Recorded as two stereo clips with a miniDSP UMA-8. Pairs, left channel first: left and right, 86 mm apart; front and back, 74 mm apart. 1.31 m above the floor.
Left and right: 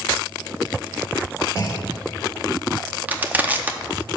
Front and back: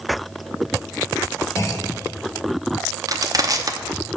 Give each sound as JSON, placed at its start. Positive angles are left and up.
{"t": 1.6, "sound": "a clunk", "azimuth_deg": 40, "distance_m": 1.0}
{"t": 3.1, "sound": "crushing", "azimuth_deg": -160, "distance_m": 0.7}